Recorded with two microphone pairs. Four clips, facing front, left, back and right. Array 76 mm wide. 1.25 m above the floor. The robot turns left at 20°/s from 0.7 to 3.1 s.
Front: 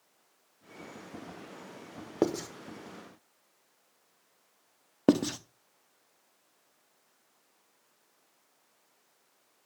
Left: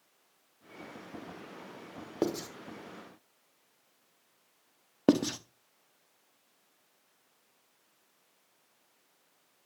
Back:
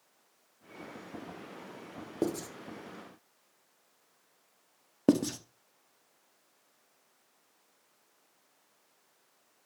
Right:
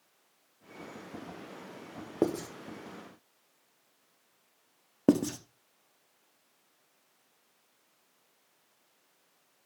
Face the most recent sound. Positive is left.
turn(degrees=40)